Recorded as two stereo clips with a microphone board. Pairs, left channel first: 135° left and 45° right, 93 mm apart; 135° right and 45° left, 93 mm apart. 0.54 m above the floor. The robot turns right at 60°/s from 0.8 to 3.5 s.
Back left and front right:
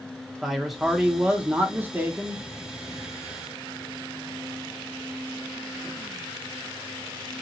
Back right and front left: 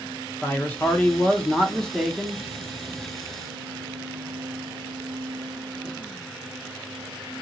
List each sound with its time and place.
0.4 s a man speaking: 130° right, 0.9 m; by 2.4 s 30° right, 0.9 m